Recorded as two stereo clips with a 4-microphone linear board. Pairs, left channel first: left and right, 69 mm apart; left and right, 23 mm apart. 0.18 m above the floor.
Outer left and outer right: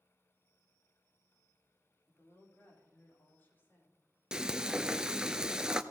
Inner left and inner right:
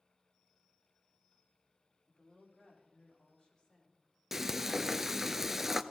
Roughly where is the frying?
Centre.